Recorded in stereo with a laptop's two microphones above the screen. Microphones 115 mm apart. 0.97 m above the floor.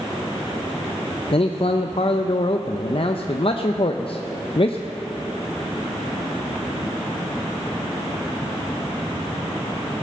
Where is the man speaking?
55° left (ahead or behind), 0.6 m.